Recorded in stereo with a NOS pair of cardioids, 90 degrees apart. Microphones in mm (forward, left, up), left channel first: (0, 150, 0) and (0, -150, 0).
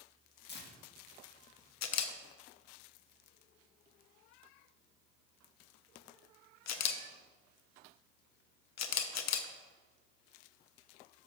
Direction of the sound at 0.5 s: 35° left.